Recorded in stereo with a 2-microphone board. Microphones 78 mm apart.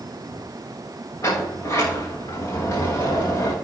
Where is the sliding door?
40° left (ahead or behind), 4.5 m.